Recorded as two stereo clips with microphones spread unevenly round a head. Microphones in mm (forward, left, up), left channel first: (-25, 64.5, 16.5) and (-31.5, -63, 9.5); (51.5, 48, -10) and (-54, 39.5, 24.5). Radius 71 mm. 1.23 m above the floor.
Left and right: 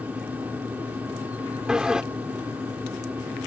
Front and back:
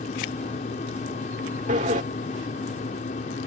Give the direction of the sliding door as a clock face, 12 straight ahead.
6 o'clock.